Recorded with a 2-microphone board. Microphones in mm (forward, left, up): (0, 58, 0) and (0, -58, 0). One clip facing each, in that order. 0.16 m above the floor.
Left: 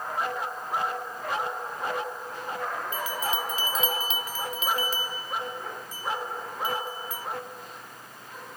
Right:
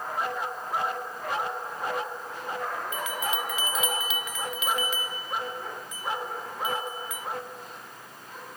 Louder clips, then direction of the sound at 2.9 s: Left 1 dB; 35° left (ahead or behind).